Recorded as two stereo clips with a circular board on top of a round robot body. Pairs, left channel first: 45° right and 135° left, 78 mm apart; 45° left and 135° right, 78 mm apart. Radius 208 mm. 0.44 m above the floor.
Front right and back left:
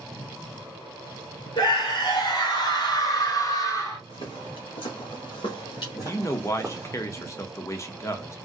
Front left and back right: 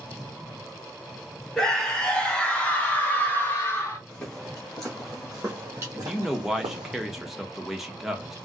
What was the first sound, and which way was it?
A scream, 35° right.